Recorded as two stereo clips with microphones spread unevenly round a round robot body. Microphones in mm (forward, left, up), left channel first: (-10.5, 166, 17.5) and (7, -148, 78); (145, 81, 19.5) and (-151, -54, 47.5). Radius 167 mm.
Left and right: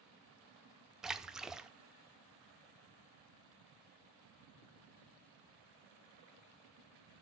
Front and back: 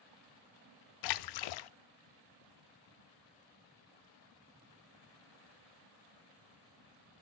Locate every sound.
1.0 s a splash: 5° left, 0.5 m